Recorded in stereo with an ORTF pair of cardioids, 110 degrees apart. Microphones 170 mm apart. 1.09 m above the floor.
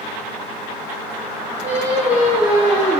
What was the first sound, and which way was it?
Singing, 10° right.